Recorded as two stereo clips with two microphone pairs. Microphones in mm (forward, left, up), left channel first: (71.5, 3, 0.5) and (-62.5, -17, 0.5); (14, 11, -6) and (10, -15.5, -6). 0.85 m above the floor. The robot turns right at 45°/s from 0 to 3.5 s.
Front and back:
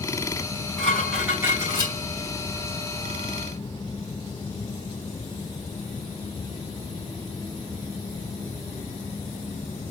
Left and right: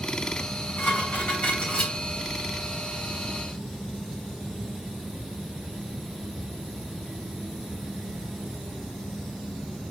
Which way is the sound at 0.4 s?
70° left.